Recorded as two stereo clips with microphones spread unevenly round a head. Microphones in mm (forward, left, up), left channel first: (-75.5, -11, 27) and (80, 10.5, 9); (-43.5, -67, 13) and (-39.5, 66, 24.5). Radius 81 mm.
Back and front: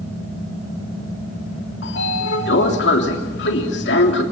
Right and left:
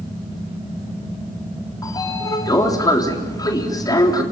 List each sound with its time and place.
1.8 s a sliding door: 155° right, 3.5 m